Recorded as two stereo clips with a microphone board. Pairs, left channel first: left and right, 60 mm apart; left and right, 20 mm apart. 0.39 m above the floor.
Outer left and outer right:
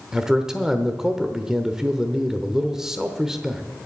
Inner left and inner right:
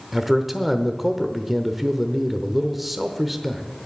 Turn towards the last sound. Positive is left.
turn(degrees=-10)  # may be behind; listen again after turning